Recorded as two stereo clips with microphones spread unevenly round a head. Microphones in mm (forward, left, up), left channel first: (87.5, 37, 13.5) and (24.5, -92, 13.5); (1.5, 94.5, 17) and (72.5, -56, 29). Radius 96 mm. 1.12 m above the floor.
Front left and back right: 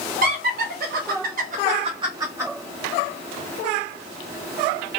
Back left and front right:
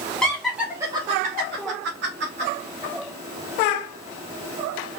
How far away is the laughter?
About 0.9 m.